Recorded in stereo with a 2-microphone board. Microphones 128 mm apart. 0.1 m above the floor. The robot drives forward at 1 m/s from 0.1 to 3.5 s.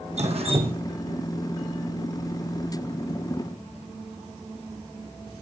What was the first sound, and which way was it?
Dripping, 60° right (ahead or behind).